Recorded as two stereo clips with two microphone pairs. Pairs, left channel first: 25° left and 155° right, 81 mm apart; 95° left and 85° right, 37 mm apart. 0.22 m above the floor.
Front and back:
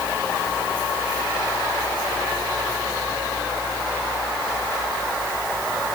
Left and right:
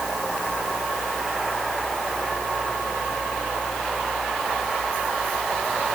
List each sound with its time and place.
Only background noise.